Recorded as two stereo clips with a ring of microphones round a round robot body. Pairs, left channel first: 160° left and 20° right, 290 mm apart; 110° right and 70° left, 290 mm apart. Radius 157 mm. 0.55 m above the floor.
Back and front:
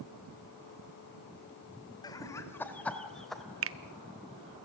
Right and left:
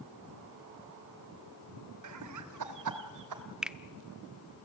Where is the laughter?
80° left, 2.5 m; by 3.4 s 70° left, 3 m.